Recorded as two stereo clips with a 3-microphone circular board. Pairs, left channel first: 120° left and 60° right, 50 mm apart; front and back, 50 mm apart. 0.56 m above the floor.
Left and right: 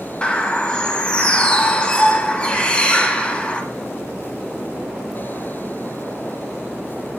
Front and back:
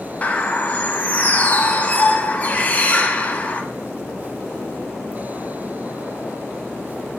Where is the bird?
55° left, 0.6 m.